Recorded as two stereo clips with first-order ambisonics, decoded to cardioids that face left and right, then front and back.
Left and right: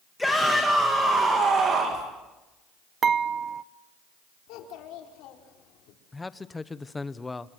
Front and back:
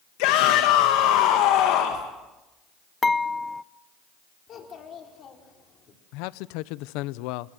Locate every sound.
0.2 s a shout: 5° left, 2.5 m; by 2.0 s 35° right, 2.5 m
3.0 s dishes clattering: 70° right, 0.6 m
4.5 s a child speaking: 60° left, 4 m
6.1 s a man speaking: 10° left, 0.6 m